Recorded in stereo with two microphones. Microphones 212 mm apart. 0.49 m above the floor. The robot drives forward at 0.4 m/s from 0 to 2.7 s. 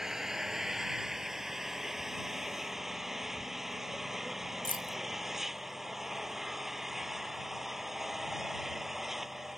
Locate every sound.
0.0 s an engine running: centre (ahead or behind)
4.7 s keys jangling: 40° left (ahead or behind)